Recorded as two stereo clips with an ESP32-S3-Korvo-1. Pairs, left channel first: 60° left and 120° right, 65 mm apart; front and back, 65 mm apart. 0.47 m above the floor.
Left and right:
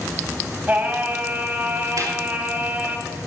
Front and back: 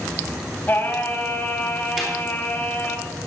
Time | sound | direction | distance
0.7 | singing | 55° right | 2 m
2.0 | a snare drum | 95° right | 9 m